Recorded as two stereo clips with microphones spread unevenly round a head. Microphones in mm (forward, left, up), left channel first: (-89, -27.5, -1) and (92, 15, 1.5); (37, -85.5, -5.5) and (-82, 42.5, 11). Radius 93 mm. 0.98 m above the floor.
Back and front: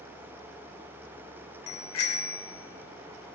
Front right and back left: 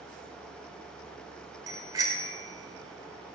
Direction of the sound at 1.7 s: 160° right.